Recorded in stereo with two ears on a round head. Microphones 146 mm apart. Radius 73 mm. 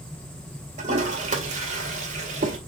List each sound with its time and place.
0.8 s a toilet flushing: 50° right (ahead or behind), 1.9 m